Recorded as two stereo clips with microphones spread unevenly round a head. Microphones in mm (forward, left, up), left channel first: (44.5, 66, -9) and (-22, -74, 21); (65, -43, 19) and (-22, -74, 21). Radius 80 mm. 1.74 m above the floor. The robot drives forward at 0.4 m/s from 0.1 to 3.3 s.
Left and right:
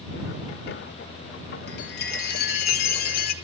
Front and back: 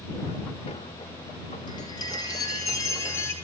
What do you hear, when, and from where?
1.7 s a chime: 70° left, 2.5 m; by 3.3 s 90° left, 2.5 m